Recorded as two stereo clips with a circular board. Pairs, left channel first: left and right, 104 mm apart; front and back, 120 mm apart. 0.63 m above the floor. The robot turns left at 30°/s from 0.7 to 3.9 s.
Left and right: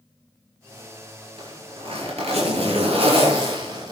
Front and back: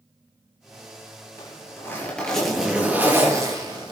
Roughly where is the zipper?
Ahead right.